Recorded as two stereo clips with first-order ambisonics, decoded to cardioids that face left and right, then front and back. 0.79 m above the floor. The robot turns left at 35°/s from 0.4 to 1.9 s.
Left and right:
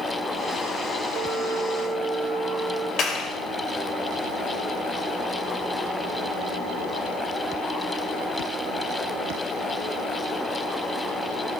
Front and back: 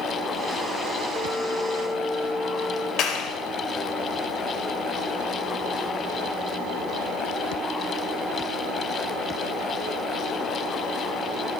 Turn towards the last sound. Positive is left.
turn(degrees=40)